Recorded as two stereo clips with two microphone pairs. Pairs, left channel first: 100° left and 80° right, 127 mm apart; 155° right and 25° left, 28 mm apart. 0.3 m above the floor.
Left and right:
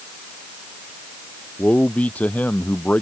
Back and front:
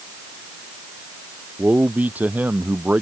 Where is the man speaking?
20° left.